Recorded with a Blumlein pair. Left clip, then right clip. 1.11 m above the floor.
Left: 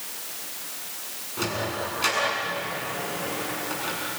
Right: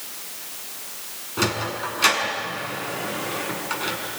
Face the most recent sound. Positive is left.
turn(degrees=-20)